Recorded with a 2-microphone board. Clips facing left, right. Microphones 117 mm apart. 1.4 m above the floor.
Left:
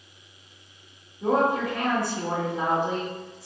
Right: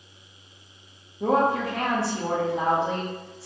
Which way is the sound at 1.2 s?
80° right.